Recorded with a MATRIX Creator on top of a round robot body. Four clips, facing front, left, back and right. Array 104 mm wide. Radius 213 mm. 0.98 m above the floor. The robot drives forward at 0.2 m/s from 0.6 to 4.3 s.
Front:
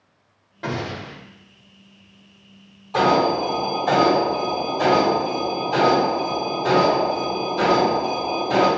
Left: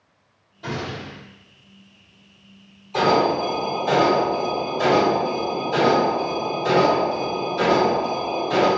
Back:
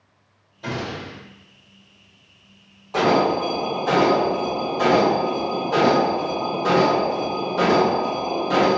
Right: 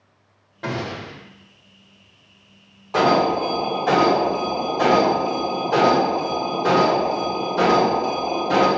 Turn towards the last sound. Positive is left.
turn(degrees=-105)